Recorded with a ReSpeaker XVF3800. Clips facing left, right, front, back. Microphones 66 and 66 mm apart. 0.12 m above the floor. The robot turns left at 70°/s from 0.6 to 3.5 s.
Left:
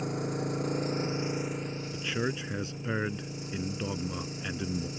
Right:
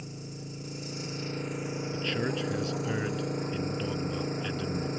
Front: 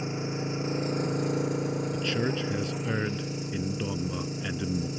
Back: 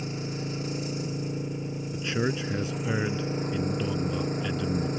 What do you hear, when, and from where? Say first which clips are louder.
0.0 s an engine running: left 10 dB, front 2 dB; 65° left; by 5.0 s 135° right
1.9 s a man speaking: right 1 dB, back 5 dB; 170° left; by 4.9 s 60° left